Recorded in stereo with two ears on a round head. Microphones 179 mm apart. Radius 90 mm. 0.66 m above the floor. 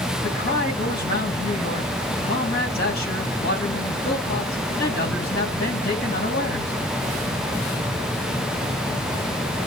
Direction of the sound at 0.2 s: 50° left (ahead or behind).